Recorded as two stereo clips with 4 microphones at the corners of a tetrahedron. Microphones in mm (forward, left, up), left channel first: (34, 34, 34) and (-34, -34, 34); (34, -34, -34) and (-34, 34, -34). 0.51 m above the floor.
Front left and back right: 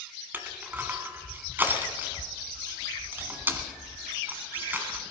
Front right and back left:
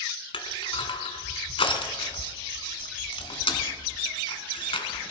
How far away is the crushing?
About 1.5 m.